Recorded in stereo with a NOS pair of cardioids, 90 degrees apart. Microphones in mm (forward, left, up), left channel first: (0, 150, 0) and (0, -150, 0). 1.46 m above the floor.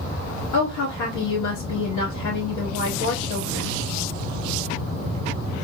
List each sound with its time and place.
0.5 s a woman speaking: 70° left, 2.5 m